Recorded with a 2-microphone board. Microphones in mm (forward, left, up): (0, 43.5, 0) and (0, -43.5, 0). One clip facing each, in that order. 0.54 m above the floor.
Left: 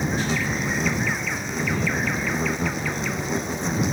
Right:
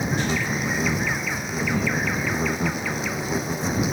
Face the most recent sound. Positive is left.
turn(degrees=-5)  # may be behind; listen again after turning